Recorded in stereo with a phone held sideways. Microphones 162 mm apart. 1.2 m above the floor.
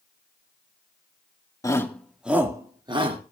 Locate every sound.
1.6 s a shout: 20° left (ahead or behind), 1.9 m; by 3.2 s 35° right (ahead or behind), 2.5 m